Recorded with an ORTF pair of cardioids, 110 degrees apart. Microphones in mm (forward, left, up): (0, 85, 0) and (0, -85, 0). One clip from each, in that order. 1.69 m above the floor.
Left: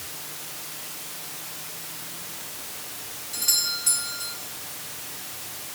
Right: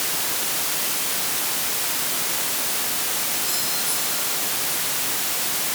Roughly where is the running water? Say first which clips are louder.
Right 12 dB; ahead right.